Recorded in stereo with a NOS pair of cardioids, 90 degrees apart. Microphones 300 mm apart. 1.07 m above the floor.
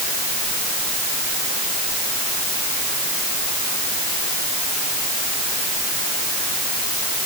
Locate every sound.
Only background noise.